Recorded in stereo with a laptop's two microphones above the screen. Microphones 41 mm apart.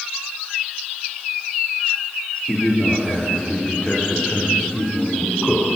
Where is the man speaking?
Centre (ahead or behind), 2.5 m; by 5.8 s 20° left (ahead or behind), 4 m.